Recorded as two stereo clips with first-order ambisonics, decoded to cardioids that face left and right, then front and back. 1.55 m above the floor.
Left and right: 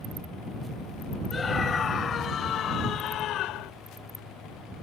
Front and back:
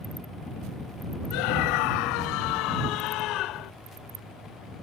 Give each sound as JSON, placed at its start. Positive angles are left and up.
{"t": 1.3, "sound": "a scream", "azimuth_deg": 20}